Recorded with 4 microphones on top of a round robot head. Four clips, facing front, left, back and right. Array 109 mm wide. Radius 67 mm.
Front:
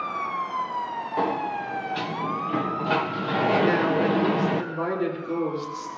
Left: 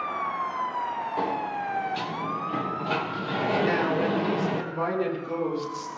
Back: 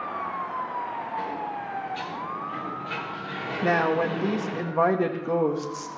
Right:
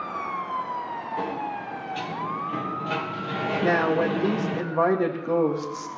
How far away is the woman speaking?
About 2 m.